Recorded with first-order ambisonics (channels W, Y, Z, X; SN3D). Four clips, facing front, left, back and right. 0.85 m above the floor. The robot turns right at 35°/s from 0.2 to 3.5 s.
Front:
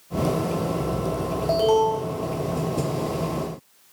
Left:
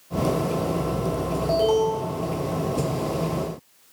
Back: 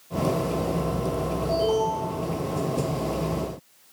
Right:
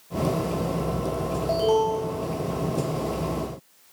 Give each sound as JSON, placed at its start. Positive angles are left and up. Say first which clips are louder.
{"t": 1.5, "sound": "an alarm", "louder": "left 1 dB, front 5 dB", "azimuth_deg": 15, "distance_m": 1.3}